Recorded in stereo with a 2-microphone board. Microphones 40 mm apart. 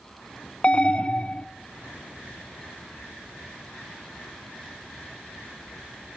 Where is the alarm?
20° left (ahead or behind), 0.6 m.